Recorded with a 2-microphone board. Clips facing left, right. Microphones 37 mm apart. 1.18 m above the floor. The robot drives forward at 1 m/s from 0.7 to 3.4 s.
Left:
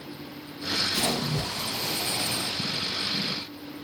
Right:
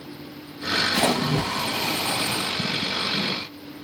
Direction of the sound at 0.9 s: 50° right (ahead or behind).